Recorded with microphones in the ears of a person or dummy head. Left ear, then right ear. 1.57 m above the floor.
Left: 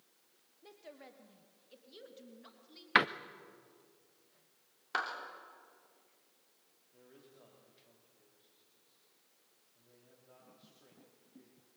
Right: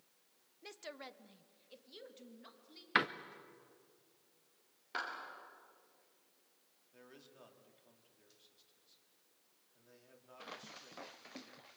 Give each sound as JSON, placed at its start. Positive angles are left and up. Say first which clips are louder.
{"t": 0.6, "sound": "a woman speaking", "louder": "right 4 dB", "side_deg": -80, "distance_m": 1.2}
{"t": 3.0, "sound": "a door slam", "louder": "left 5 dB", "side_deg": 15, "distance_m": 0.6}
{"t": 4.9, "sound": "a clap", "louder": "left 5 dB", "side_deg": 45, "distance_m": 3.5}
{"t": 6.9, "sound": "a man speaking", "louder": "right 1 dB", "side_deg": -70, "distance_m": 4.0}